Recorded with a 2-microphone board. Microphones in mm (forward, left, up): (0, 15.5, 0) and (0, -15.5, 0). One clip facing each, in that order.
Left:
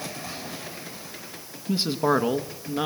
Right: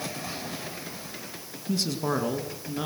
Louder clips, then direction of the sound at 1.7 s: Left 5 dB; 25° left (ahead or behind).